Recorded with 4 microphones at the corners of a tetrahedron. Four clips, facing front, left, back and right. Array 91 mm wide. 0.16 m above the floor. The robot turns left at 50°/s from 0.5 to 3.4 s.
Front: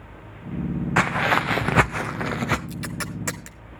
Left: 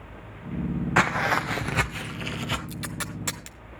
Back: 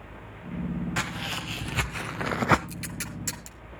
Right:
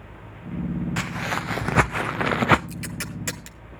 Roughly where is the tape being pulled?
Ahead left.